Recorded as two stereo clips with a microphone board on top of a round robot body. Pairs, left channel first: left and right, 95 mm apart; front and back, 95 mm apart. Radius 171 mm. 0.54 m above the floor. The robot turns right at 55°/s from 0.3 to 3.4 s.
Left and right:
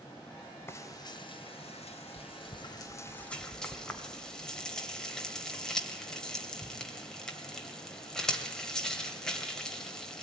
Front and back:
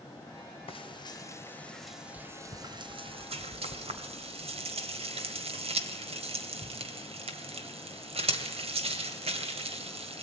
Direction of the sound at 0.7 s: 25° left.